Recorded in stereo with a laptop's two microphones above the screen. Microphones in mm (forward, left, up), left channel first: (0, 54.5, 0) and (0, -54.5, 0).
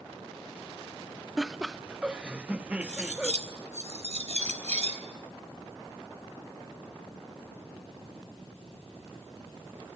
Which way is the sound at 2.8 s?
80° right.